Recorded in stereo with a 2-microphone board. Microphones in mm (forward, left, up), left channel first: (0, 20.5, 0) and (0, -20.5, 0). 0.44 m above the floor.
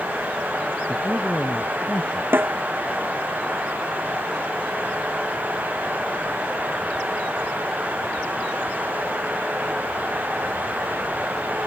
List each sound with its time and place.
0.9 s a man speaking: 40° left (ahead or behind)
2.3 s a snare drum: 55° right (ahead or behind)